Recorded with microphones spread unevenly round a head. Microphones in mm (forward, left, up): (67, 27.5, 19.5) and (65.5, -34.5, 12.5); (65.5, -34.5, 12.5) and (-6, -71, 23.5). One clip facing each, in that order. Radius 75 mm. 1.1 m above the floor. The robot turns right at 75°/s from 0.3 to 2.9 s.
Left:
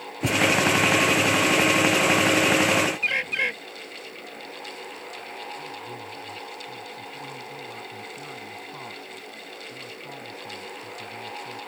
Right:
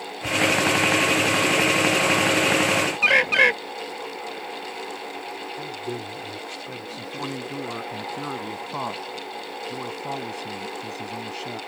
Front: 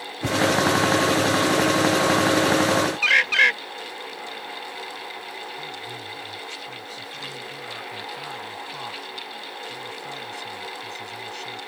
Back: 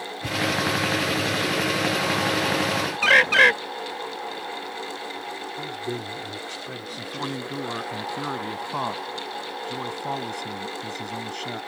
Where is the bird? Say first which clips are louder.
Right 8 dB, back 3 dB; 125° right.